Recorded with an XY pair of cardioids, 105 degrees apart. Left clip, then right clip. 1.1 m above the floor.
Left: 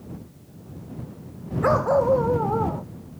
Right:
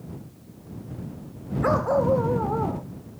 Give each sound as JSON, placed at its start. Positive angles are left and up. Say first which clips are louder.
{"t": 1.6, "sound": "a dog barking", "louder": "left 3 dB", "azimuth_deg": 20}